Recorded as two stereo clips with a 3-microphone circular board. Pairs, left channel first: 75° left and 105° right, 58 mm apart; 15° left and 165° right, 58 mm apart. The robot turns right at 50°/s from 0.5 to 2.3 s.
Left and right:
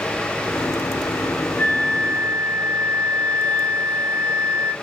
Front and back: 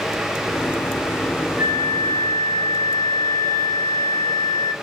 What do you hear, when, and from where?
1.6 s a flute: 125° left, 2 m; by 4.7 s 160° left, 2 m